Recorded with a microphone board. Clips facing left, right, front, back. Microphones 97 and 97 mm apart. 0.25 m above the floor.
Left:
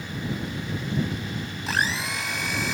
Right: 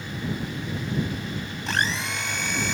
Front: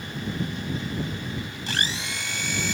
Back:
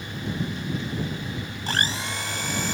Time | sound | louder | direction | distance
1.7 | a blender | even, back 4 dB | 175° left | ?